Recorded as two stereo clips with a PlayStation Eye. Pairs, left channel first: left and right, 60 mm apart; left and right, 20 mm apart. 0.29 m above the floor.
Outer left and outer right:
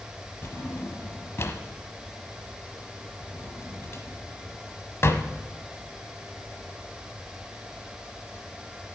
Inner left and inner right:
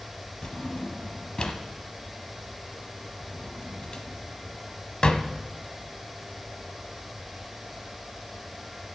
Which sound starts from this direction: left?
A drawer, at 0.4 s.